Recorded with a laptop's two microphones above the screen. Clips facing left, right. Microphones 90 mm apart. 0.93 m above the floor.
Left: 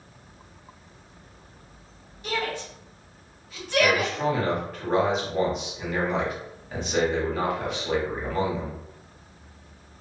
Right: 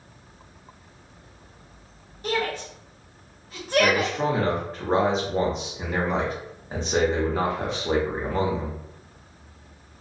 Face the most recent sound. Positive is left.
turn(degrees=-30)  # may be behind; listen again after turning